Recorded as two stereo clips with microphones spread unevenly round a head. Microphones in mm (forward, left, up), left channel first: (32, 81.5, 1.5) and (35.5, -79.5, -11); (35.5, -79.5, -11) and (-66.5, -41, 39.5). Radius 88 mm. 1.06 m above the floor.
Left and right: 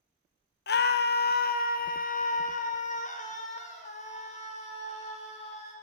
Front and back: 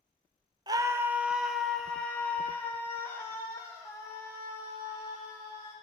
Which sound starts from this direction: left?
A scream, at 0.7 s.